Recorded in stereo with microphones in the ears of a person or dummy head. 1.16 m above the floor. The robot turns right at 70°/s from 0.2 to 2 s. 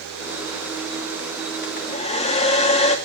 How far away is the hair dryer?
About 2.5 m.